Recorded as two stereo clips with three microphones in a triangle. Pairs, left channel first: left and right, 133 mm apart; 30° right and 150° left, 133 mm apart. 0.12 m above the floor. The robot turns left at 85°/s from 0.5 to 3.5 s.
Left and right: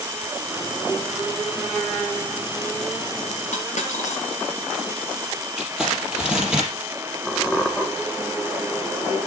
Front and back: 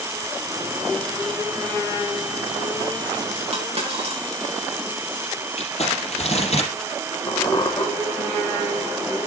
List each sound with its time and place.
3.5 s a dropped coin: 110° left, 6.5 m
5.6 s crumpling: 5° right, 4 m
7.3 s a squeak: 15° left, 1.2 m